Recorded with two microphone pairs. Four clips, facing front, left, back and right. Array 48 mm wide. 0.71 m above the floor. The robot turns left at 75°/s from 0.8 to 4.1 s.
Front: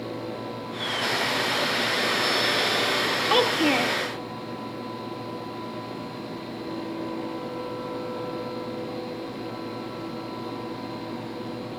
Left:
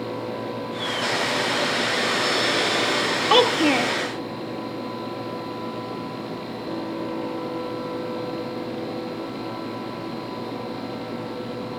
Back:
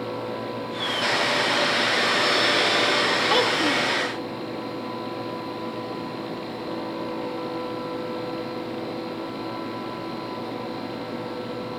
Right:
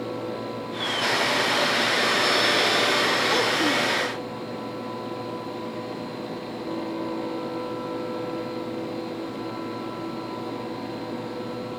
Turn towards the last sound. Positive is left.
turn(degrees=30)